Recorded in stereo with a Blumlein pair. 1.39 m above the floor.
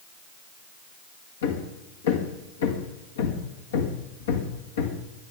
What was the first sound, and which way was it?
Hammering, 60° left.